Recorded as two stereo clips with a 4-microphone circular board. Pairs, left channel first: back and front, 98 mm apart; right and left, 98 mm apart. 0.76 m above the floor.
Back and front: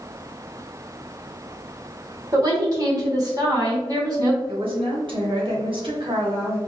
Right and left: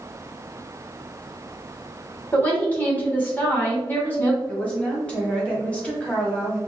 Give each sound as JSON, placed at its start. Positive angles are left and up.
{"t": 2.3, "sound": "a woman speaking", "azimuth_deg": -30, "distance_m": 1.3}
{"t": 4.5, "sound": "a woman speaking", "azimuth_deg": -15, "distance_m": 1.3}